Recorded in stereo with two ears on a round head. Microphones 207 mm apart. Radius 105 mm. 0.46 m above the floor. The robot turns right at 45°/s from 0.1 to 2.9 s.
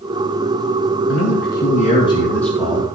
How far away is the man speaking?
About 2.5 m.